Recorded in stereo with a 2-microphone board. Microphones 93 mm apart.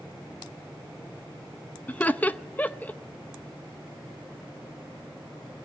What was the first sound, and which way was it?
Laughter, 15° left (ahead or behind).